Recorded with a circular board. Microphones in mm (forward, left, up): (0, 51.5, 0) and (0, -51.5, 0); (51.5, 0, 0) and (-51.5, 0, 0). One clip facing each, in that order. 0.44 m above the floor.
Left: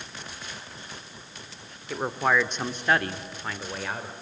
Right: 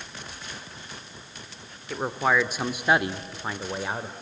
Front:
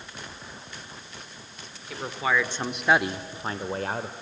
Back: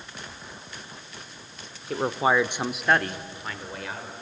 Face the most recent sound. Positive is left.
turn(degrees=-25)